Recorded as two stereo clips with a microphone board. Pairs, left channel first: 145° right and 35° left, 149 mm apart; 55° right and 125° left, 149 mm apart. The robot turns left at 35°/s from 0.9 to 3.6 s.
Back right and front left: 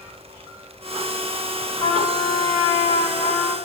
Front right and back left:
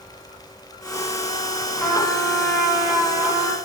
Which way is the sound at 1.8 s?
125° right.